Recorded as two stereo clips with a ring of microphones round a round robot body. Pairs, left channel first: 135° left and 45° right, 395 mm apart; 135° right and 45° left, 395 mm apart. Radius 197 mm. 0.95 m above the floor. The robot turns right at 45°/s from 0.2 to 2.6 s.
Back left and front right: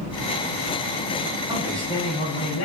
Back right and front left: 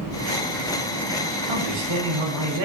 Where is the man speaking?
35° left, 6 m; by 2.6 s 85° left, 6 m.